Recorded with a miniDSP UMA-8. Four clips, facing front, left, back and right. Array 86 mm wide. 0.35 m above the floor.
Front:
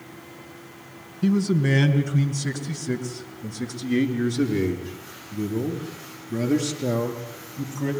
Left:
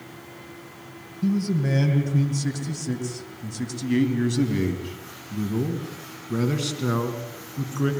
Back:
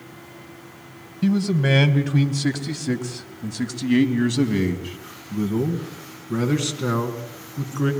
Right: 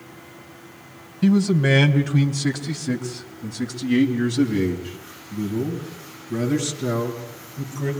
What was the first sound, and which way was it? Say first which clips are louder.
A man speaking: right 6 dB, back 1 dB; 130° right.